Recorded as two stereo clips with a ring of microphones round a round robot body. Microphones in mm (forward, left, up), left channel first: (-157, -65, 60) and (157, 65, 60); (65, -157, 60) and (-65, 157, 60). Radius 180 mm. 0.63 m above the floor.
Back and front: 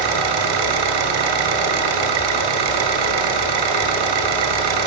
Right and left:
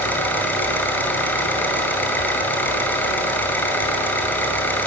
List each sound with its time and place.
0.0 s an engine running: 15° left, 2.5 m